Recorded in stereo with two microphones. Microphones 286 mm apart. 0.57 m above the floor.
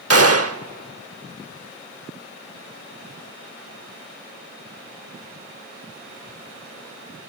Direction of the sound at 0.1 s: 50° right (ahead or behind).